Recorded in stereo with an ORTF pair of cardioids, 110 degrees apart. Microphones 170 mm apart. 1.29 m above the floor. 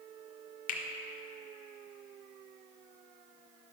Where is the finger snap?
50° left, 1.0 m.